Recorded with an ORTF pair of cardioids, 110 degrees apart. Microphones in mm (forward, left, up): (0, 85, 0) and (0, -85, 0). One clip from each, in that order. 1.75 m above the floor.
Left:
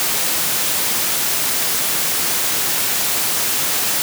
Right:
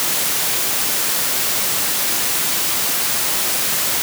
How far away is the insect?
No insect in this recording.